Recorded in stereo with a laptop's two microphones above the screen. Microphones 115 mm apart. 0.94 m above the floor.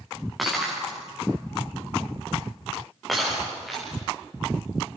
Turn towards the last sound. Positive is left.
turn(degrees=0)  # may be behind; listen again after turning